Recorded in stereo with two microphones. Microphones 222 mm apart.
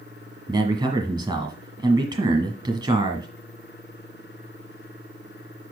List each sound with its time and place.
0.5 s a man speaking: 20° right (ahead or behind), 1.7 m